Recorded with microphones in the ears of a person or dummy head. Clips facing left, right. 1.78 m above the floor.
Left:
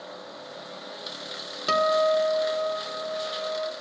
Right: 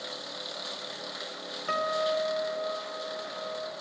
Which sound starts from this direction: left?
A guitar, at 1.7 s.